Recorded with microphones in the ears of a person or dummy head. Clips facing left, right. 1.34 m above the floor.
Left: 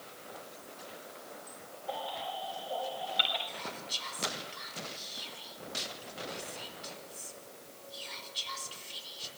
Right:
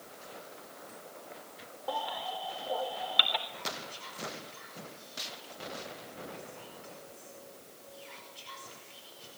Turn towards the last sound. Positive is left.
turn(degrees=50)  # may be behind; listen again after turning